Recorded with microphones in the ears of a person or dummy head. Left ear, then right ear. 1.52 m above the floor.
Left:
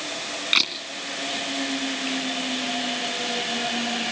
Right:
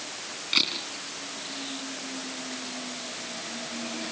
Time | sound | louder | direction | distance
0.5 | a camera shutter | left 3 dB | 35° left (ahead or behind) | 3 m